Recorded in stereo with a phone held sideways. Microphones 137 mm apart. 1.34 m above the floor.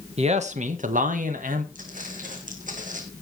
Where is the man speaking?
50° right (ahead or behind), 1.6 m; by 1.6 s 80° right, 2 m.